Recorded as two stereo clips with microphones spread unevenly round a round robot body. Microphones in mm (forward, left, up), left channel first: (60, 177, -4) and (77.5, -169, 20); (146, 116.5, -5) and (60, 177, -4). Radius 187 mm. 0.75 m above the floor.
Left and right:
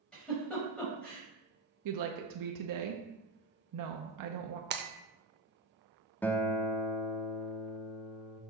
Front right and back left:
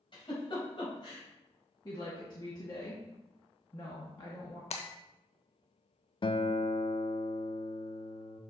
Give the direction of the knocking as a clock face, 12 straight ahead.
I don't hear knocking.